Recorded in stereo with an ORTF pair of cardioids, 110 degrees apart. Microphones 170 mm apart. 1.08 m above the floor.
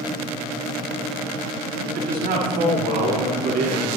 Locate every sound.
1.8 s a man speaking: 60° right, 6 m